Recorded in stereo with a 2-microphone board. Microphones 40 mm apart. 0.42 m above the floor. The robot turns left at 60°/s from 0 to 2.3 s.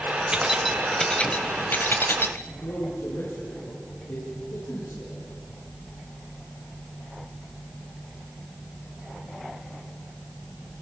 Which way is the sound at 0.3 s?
20° right (ahead or behind).